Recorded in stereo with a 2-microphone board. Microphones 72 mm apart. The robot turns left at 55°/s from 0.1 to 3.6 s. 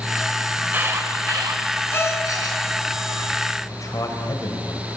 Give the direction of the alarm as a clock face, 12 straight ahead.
1 o'clock.